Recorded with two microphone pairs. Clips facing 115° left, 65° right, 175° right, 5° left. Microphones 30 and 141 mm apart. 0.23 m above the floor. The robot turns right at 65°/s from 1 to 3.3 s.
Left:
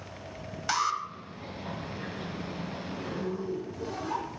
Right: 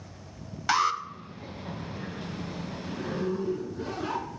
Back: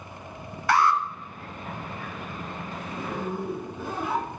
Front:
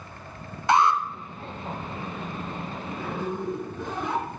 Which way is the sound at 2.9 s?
120° right.